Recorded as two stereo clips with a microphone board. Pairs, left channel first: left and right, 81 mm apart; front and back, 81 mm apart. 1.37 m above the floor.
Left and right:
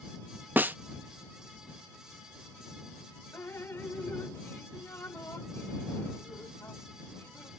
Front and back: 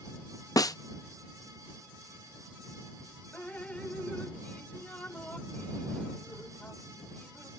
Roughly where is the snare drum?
Ahead right.